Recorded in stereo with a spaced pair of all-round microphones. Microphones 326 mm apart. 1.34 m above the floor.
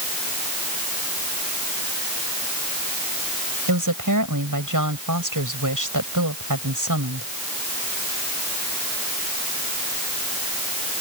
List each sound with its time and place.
3.7 s a woman speaking: 70° right (ahead or behind)